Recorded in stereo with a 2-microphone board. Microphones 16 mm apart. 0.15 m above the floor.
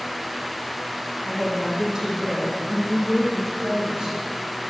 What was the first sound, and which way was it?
A woman speaking, 40° right (ahead or behind).